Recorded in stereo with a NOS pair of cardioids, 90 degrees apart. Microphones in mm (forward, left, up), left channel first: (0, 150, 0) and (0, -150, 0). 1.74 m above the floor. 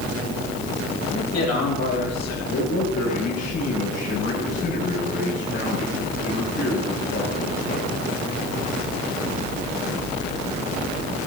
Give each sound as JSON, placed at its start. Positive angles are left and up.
{"t": 1.1, "sound": "a man speaking", "azimuth_deg": 60, "distance_m": 8.5}
{"t": 2.5, "sound": "a man speaking", "azimuth_deg": 55, "distance_m": 9.0}